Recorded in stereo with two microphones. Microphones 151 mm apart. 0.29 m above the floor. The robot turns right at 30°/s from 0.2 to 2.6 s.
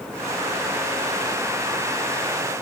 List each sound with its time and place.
Only background noise.